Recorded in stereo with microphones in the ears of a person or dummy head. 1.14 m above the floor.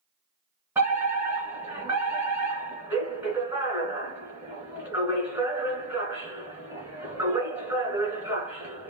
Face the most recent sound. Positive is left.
turn(degrees=-5)  # may be behind; listen again after turning